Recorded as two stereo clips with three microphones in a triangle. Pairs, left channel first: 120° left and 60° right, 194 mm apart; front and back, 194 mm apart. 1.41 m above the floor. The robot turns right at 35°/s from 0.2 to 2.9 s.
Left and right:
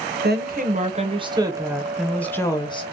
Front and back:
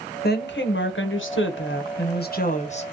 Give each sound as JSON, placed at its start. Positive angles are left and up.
{"t": 0.2, "sound": "a woman speaking", "azimuth_deg": -30, "distance_m": 0.9}